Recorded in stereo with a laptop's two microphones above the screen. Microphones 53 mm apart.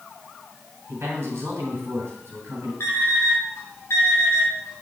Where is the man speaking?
70° right (ahead or behind), 3 m.